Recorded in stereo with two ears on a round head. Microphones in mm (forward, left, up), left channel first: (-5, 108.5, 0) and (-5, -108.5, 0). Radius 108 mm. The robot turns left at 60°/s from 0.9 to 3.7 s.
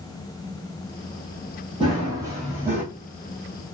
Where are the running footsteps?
20° right (ahead or behind), 1.7 m; by 2.8 s 10° right (ahead or behind), 1.6 m.